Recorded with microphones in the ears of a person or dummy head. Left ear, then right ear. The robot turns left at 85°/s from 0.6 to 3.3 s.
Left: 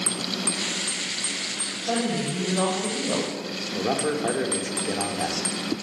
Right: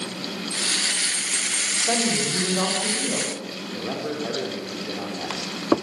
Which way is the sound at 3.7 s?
70° left (ahead or behind).